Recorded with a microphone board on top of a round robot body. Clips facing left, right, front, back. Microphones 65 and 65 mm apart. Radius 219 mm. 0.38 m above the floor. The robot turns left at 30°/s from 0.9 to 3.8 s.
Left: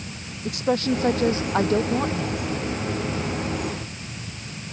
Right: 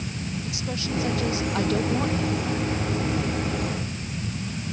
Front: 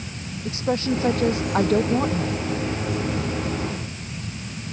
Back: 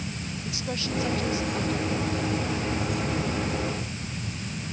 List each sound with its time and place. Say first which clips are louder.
0.5 s a woman speaking: left 13 dB, front 10 dB; 55° left; by 2.5 s 5° left